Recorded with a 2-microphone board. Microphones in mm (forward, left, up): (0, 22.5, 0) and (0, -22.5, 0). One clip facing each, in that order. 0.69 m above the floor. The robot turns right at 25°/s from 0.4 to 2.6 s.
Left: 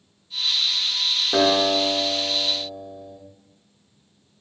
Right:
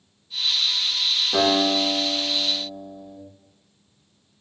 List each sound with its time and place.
1.3 s a guitar: 30° left, 1.8 m; by 3.2 s 60° left, 1.8 m